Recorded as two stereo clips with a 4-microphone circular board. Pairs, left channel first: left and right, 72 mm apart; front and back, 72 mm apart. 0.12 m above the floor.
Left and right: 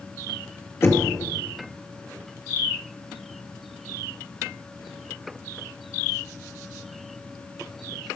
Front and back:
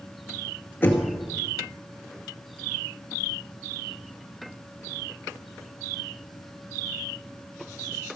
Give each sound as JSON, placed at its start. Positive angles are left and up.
{"t": 0.8, "sound": "knocking", "azimuth_deg": 55, "distance_m": 2.0}